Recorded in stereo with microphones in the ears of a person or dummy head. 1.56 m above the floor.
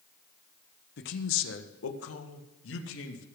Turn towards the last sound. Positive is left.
turn(degrees=75)  # may be behind; listen again after turning